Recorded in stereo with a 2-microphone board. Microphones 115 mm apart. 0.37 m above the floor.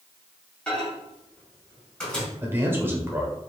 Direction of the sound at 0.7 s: 10° left (ahead or behind).